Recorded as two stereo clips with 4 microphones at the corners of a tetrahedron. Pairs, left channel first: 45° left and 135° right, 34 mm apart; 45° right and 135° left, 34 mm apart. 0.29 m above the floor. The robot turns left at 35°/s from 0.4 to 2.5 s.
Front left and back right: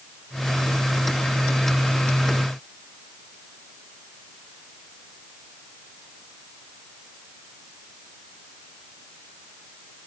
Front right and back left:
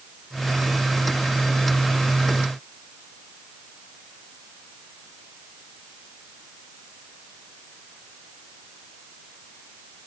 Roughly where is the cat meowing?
No cat meowing in this recording.